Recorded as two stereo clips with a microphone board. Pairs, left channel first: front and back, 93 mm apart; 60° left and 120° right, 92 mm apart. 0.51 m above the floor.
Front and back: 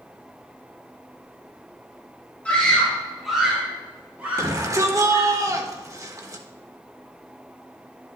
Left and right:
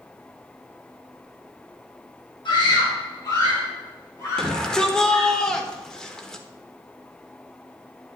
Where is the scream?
75° left, 2.5 m; by 5.3 s 125° left, 3 m.